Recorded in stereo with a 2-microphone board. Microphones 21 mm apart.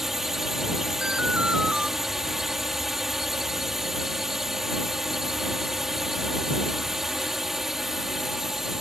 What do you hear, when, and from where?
0.0 s a drone: 15° right (ahead or behind)
1.0 s an alarm: 60° right (ahead or behind)